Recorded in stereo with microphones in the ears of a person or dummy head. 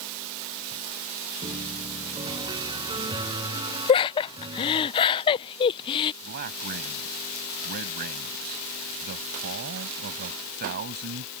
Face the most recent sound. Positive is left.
turn(degrees=-55)  # may be behind; listen again after turning